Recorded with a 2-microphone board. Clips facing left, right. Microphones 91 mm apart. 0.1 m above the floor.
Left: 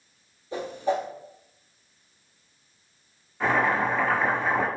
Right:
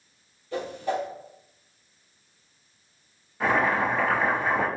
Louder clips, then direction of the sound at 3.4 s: Even; 5° right (ahead or behind).